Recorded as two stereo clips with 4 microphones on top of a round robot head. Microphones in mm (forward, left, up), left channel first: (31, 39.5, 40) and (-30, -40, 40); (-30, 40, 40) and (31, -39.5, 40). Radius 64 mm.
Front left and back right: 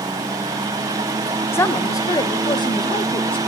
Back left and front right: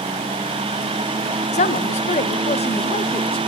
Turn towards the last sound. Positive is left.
turn(degrees=90)